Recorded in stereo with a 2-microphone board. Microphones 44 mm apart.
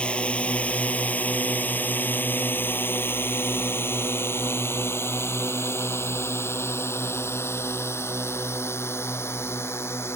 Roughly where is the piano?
No piano in this recording.